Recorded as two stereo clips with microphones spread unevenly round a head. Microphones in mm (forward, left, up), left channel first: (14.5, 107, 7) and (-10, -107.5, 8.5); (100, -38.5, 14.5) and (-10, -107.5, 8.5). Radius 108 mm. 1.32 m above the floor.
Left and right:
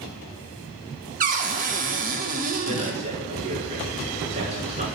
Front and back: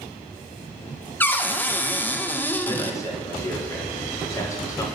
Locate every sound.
1.2 s a cupboard door: 45° right, 0.6 m
2.7 s a man speaking: 35° right, 1.7 m